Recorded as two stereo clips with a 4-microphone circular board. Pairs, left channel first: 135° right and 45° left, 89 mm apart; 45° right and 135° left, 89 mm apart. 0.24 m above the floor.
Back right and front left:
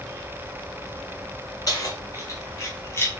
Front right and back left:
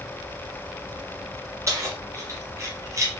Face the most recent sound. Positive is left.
turn(degrees=175)